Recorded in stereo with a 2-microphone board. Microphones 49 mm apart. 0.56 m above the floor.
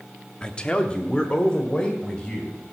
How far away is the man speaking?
About 0.8 m.